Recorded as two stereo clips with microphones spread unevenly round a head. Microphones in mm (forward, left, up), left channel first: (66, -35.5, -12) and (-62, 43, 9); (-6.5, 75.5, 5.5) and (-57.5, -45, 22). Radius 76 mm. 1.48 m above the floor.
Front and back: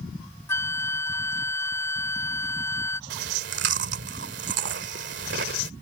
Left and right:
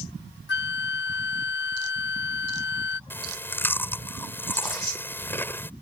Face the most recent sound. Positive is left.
turn(degrees=145)